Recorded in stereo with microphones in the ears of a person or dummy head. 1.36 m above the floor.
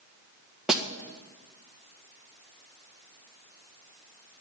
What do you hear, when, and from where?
0.7 s a snare drum: centre (ahead or behind), 1.6 m